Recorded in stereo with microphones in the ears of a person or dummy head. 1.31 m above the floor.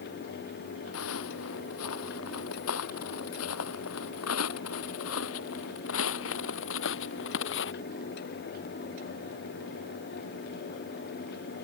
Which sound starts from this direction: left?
Footsteps, at 0.9 s.